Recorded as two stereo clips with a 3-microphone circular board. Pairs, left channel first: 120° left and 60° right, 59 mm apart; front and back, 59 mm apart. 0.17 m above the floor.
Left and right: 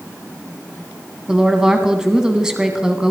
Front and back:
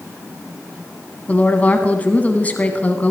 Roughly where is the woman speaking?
Ahead.